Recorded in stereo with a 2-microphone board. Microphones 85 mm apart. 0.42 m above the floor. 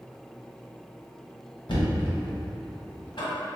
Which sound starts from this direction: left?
Knocking, at 1.7 s.